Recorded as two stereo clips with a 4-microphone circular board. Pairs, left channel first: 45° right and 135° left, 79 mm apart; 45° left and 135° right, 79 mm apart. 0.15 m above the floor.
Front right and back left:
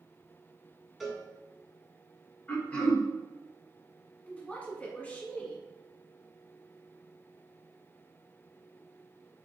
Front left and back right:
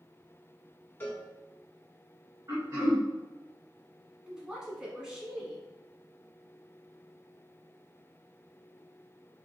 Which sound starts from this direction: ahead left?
A cowbell, at 1.0 s.